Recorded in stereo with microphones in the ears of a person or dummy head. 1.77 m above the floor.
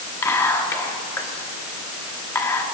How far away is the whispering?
About 1.6 m.